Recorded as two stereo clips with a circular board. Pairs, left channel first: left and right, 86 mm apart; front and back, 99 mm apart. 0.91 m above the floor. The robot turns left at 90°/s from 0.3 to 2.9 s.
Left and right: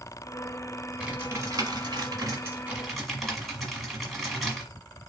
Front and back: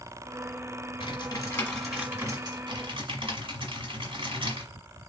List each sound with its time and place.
1.0 s typing on a keyboard: 10° right, 1.3 m; by 4.7 s straight behind, 1.3 m